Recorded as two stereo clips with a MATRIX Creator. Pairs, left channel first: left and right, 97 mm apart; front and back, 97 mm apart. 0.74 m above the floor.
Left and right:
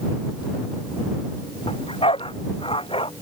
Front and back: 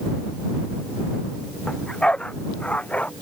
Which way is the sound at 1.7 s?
80° left.